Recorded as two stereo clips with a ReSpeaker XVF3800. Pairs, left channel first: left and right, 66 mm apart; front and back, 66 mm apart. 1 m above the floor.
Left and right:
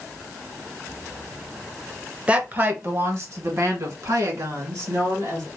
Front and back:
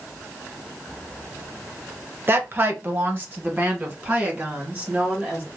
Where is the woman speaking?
150° right, 0.7 m; by 5.5 s 115° right, 2.5 m.